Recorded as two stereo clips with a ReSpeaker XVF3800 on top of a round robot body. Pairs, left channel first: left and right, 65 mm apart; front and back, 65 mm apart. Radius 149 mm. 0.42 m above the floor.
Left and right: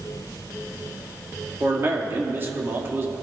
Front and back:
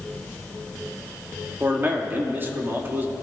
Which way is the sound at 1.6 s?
135° right.